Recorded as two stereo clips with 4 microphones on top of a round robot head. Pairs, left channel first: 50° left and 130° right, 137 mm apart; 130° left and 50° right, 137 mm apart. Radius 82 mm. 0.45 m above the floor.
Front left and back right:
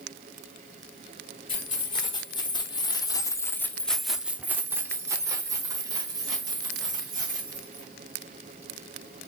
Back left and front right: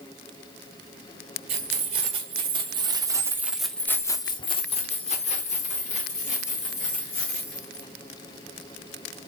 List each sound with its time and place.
1.5 s keys jangling: 10° right, 1.4 m; by 7.9 s 165° left, 2.5 m